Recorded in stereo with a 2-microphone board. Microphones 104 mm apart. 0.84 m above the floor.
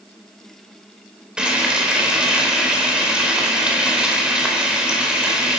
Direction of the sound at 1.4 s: 10° right (ahead or behind).